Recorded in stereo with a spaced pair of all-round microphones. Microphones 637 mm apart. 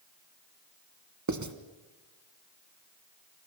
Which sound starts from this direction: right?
Writing, at 1.3 s.